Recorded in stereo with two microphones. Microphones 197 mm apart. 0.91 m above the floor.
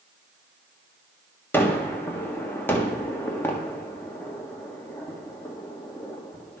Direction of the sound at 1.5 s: 10° left (ahead or behind).